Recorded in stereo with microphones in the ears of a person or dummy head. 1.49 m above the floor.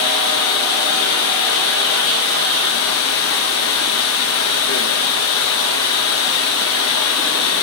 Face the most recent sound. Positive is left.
turn(degrees=80)